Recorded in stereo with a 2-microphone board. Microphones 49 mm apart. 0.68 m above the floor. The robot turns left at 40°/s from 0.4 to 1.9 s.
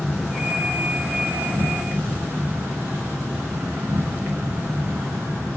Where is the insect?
10° right, 5.5 m; by 5.6 s 70° right, 5.5 m.